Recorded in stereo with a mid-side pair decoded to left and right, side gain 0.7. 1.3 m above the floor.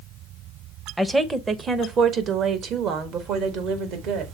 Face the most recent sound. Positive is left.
turn(degrees=-60)